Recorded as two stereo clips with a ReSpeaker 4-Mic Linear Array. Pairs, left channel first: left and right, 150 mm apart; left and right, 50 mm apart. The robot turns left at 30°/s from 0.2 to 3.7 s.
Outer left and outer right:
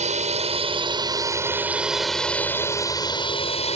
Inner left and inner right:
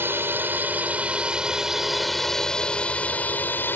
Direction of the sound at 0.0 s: 125° right.